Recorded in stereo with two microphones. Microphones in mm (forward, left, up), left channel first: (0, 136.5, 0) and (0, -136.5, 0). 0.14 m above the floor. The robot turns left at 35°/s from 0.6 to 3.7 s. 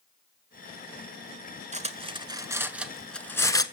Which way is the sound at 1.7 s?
30° right (ahead or behind).